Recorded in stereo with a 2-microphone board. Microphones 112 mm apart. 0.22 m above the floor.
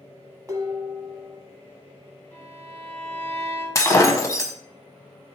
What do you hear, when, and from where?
0.5 s dishes clattering: 30° right (ahead or behind), 0.9 m
2.3 s a violin: 20° left (ahead or behind), 1.8 m
3.8 s breaking glass: 30° left (ahead or behind), 0.5 m